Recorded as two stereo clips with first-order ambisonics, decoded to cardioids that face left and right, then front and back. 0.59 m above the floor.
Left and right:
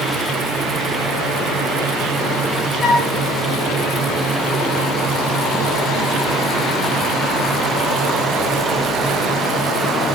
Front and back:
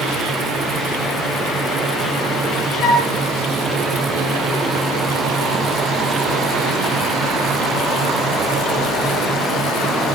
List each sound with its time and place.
2.8 s a flute: 40° left, 1.4 m